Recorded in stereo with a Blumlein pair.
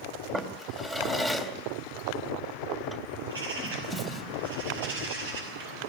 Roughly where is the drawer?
Ahead.